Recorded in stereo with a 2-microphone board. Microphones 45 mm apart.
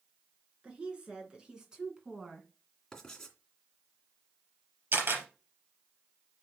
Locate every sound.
0.6 s a woman speaking: 25° right (ahead or behind), 3 m; by 2.5 s 10° right (ahead or behind), 1.9 m
2.9 s writing: 10° left (ahead or behind), 2.5 m
4.9 s a camera shutter: 50° right (ahead or behind), 3 m